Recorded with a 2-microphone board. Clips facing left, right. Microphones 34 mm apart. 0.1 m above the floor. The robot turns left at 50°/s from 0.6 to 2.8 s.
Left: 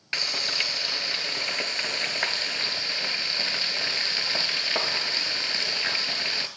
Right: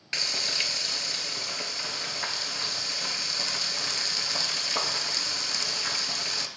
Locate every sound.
0.1 s frying: 160° left, 0.8 m; by 6.5 s 50° left, 0.8 m